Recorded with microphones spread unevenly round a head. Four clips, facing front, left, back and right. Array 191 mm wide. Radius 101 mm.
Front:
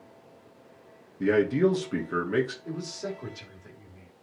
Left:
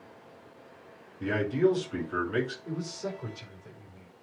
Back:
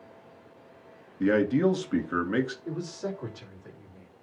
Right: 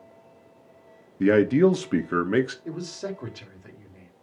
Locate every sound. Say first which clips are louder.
1.2 s a man speaking: right 8 dB, even; 85° right, 1.5 m
2.6 s a man speaking: right 2 dB, back 1 dB; 85° right, 3 m